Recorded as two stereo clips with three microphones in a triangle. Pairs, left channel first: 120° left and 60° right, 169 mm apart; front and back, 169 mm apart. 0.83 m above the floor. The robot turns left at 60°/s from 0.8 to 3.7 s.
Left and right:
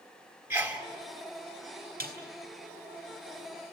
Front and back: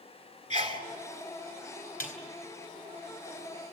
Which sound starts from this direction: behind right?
A sneeze, at 0.5 s.